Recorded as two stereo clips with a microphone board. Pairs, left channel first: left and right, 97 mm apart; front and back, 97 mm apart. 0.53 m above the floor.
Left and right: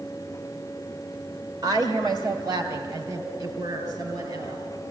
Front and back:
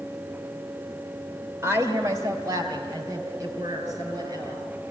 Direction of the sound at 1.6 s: 125° right.